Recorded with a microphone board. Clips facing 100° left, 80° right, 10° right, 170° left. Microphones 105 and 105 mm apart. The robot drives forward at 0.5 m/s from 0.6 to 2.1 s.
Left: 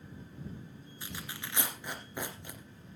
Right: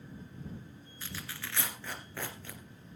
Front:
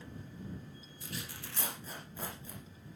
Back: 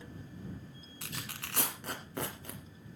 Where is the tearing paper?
170° left, 1.8 m; by 2.6 s 175° left, 2.5 m.